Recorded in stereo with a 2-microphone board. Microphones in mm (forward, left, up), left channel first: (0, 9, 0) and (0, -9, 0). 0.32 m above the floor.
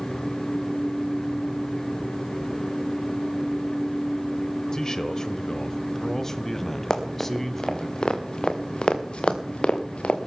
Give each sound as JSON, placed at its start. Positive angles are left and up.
{"t": 4.7, "sound": "a man speaking", "side_deg": 30, "distance_m": 1.0}
{"t": 6.9, "sound": "running footsteps", "side_deg": 30, "distance_m": 3.5}